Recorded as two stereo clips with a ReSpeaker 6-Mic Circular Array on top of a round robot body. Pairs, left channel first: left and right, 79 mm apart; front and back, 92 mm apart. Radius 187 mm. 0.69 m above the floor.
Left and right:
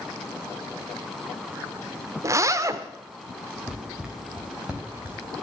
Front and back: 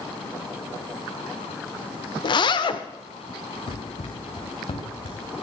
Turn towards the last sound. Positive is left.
turn(degrees=-25)